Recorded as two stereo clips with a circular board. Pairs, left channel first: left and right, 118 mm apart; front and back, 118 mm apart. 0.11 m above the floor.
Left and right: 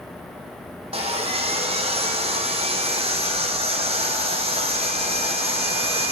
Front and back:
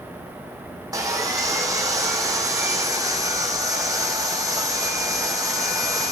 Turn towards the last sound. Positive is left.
turn(degrees=-120)